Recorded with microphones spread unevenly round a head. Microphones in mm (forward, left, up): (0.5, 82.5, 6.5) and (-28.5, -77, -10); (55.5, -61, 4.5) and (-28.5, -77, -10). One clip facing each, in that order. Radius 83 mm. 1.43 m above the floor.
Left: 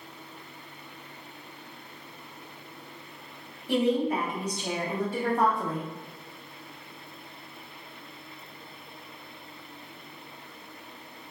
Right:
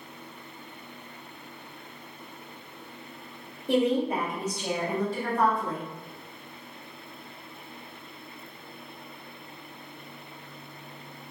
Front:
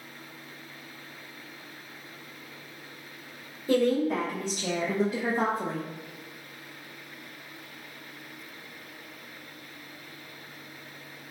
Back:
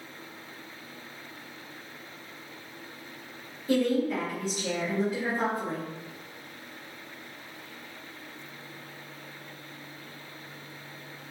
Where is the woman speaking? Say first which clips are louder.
Right 1 dB, front 1 dB; 45° right, 1.1 m; by 5.8 s 35° left, 0.5 m.